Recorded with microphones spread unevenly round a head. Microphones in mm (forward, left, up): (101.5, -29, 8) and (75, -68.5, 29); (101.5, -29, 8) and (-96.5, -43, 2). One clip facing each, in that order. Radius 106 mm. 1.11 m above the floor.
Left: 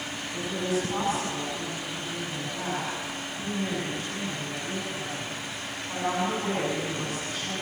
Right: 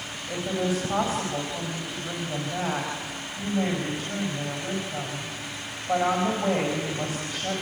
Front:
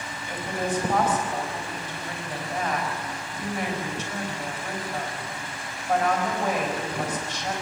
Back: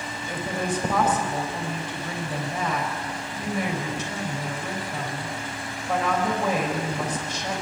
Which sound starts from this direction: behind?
A woman speaking, at 0.3 s.